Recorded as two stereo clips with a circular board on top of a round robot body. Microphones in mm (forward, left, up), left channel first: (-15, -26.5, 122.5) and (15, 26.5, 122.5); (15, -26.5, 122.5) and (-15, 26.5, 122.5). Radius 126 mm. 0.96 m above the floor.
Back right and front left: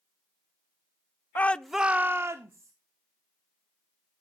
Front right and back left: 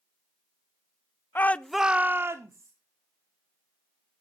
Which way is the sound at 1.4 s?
85° right.